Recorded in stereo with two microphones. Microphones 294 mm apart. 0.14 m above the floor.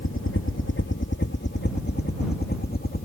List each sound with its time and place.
0.0 s a helicopter: 45° left (ahead or behind); by 3.0 s 35° left (ahead or behind)